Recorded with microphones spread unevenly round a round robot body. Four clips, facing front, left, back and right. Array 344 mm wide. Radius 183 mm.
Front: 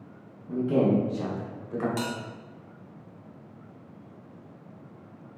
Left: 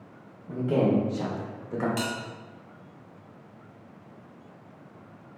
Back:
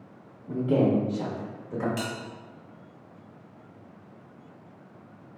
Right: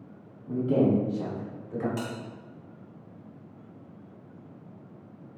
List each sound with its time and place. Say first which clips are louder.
0.5 s a man speaking: right 1 dB, even; 145° right, 1.2 m; by 1.9 s 115° left, 1.2 m
2.0 s a bell: left 3 dB, front 2 dB; 20° left, 1.8 m